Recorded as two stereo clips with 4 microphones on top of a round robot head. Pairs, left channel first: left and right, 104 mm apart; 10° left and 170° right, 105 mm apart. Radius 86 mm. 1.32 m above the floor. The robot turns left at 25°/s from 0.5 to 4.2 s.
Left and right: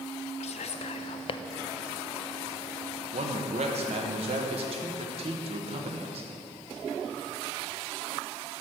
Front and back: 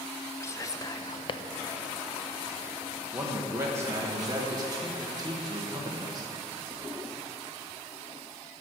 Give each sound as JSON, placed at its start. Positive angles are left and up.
{"t": 0.4, "sound": "whispering", "azimuth_deg": 75, "distance_m": 0.6}
{"t": 3.1, "sound": "a man speaking", "azimuth_deg": -90, "distance_m": 1.1}